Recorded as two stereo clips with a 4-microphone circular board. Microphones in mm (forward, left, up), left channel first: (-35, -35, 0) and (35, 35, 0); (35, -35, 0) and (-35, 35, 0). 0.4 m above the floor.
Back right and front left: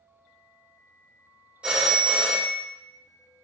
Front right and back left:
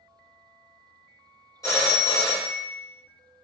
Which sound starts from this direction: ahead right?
A phone ringing, at 1.6 s.